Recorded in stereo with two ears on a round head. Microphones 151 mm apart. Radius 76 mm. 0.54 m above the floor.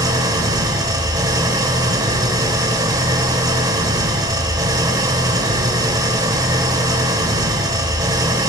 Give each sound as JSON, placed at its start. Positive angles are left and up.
{"t": 0.0, "sound": "an engine running", "side_deg": -20, "distance_m": 0.7}